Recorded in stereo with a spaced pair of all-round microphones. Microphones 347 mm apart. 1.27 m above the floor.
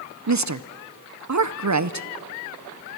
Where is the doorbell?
No doorbell in this recording.